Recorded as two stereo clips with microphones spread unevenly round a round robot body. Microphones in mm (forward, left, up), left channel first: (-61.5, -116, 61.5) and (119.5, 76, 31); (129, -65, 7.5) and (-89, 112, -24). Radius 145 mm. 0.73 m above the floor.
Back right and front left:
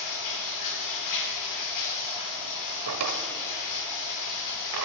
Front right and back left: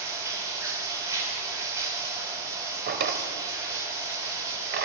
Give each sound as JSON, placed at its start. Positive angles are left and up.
{"t": 0.0, "sound": "running water", "azimuth_deg": -140, "distance_m": 2.0}
{"t": 2.9, "sound": "a drawer", "azimuth_deg": 85, "distance_m": 1.1}